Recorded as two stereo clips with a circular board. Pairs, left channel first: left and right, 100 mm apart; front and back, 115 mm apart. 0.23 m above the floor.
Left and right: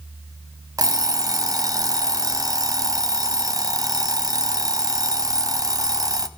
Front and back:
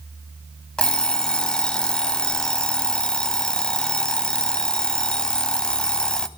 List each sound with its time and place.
0.8 s an alarm clock: 75° right, 0.6 m